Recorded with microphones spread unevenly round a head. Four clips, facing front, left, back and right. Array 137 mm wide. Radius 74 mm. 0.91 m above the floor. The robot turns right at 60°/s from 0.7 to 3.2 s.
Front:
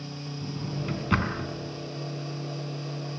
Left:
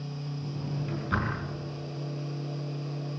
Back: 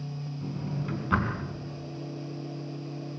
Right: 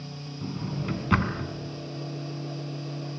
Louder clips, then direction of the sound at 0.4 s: Right 5 dB, front 1 dB; 100° right.